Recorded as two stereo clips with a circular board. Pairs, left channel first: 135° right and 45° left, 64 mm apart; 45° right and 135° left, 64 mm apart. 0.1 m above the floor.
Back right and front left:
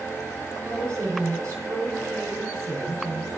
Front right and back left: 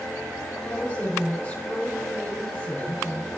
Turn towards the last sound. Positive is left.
turn(degrees=15)